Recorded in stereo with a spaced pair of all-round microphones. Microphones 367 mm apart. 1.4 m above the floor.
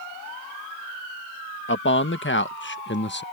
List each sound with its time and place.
1.7 s a man speaking: 35° left (ahead or behind); by 3.2 s 30° left (ahead or behind)